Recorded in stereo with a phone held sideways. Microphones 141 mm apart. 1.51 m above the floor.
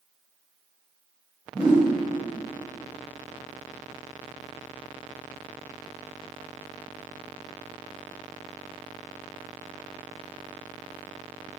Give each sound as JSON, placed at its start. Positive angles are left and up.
{"t": 1.5, "sound": "a whoosh", "side_deg": -10, "distance_m": 1.4}